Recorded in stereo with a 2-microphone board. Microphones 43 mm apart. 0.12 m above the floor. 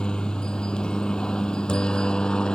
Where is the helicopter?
20° left (ahead or behind).